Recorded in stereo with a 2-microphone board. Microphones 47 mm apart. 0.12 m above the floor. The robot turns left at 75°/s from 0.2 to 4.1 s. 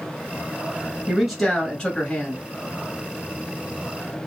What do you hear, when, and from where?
1.1 s a man speaking: 10° right (ahead or behind), 1.3 m; by 2.4 s 25° left (ahead or behind), 1.3 m